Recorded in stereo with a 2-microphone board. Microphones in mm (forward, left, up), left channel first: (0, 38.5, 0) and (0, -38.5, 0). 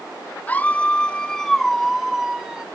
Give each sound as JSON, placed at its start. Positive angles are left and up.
{"t": 0.5, "sound": "a scream", "side_deg": 20}